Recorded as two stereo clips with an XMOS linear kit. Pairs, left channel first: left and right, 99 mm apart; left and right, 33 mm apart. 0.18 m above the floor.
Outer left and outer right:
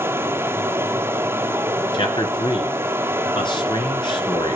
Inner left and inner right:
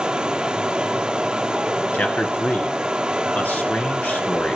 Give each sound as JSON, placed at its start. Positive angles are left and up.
{"t": 0.0, "sound": "running water", "side_deg": -25, "distance_m": 0.8}
{"t": 1.9, "sound": "a man speaking", "side_deg": 55, "distance_m": 2.5}